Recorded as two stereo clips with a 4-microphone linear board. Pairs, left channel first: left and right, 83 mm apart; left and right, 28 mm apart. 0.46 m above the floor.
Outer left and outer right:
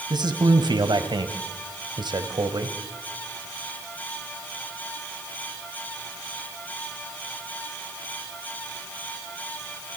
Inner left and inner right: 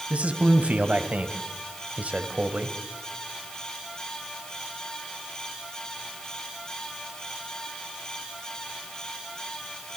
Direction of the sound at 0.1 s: 60° right (ahead or behind).